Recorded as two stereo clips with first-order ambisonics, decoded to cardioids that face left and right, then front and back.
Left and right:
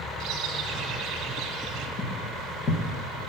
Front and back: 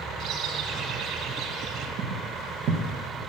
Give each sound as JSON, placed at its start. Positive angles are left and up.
{"t": 0.2, "sound": "a bird", "azimuth_deg": -135, "distance_m": 2.5}
{"t": 2.0, "sound": "footsteps", "azimuth_deg": 140, "distance_m": 3.0}